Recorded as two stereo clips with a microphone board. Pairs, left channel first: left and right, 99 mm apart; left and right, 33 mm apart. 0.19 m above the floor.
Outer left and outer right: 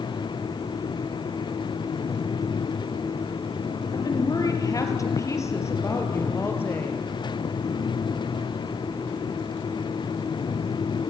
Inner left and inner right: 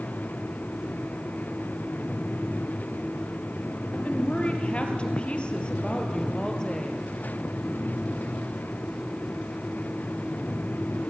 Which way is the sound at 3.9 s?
45° left (ahead or behind).